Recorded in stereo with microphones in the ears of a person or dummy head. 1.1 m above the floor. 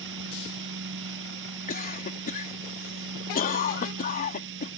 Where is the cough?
45° left (ahead or behind).